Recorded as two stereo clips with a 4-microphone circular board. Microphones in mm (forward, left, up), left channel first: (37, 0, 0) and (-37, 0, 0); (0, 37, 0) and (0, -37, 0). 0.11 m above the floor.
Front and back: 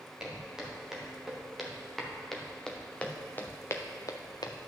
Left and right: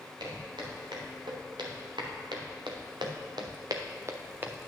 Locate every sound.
0.2 s footsteps: 100° right, 3.5 m; by 4.7 s 15° right, 1.1 m